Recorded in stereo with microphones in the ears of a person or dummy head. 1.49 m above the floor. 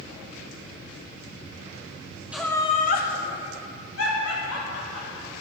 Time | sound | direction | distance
2.3 | laughter | 5° right (ahead or behind) | 1.1 m